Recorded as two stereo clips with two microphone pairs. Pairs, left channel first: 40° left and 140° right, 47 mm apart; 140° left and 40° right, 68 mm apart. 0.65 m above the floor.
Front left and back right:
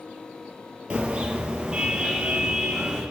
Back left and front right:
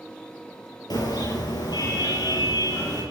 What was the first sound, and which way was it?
A car horn, 155° left.